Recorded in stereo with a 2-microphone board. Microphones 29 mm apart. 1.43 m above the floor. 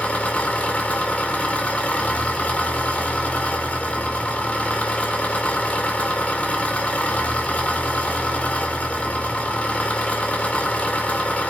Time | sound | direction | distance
0.0 | an engine running | 60° left (ahead or behind) | 2.5 m